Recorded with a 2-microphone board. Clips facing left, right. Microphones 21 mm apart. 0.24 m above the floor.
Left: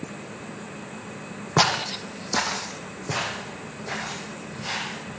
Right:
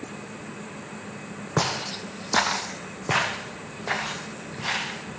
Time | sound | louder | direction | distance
1.6 | footsteps | left 5 dB | 50° left (ahead or behind) | 0.6 m